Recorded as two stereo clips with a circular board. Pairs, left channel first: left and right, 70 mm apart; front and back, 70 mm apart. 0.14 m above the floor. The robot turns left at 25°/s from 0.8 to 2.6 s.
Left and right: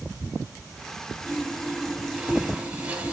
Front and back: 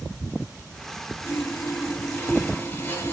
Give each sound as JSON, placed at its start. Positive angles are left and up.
{"t": 1.2, "sound": "sawing", "azimuth_deg": -5, "distance_m": 1.9}